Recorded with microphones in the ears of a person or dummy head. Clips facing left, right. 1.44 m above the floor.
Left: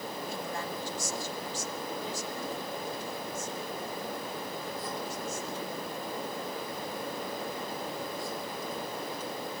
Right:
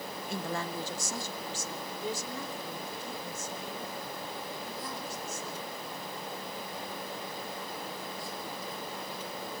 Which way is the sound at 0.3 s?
50° right (ahead or behind).